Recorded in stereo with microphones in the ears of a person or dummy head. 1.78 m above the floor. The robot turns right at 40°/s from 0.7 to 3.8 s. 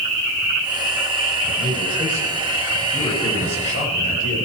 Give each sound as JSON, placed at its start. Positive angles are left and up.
{"t": 1.5, "sound": "a man speaking", "azimuth_deg": -50, "distance_m": 8.5}